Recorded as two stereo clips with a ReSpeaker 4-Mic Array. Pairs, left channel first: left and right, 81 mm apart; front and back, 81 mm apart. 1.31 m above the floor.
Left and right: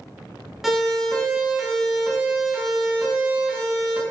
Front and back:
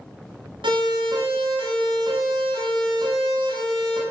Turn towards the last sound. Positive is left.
turn(degrees=-165)